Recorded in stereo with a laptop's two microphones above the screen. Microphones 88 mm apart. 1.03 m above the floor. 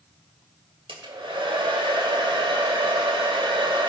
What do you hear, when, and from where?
0.9 s a hair dryer: 80° right, 2.5 m